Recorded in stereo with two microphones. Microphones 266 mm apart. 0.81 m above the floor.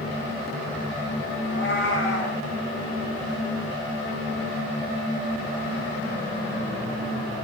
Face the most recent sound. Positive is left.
turn(degrees=50)  # may be behind; listen again after turning